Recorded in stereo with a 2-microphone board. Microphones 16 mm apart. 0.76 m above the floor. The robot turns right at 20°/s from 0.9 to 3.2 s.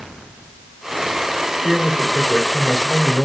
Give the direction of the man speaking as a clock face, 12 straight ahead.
1 o'clock.